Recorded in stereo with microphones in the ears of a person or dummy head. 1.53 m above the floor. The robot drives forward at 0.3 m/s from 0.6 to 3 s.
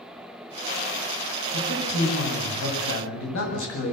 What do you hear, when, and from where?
1.5 s a man speaking: 70° left (ahead or behind), 7.5 m; by 3.9 s 65° left (ahead or behind), 7.5 m